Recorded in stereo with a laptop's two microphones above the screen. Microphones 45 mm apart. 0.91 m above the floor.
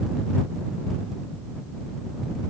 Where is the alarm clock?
I don't hear an alarm clock.